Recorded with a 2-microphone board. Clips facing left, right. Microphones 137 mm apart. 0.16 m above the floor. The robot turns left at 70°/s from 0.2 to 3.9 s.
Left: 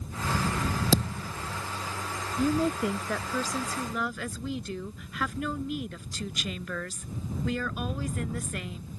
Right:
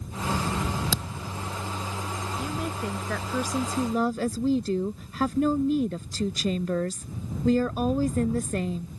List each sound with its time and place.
0.9 s a thud: 45° left (ahead or behind); by 1.3 s 15° left (ahead or behind)
2.4 s a woman speaking: 55° left; by 8.9 s 50° right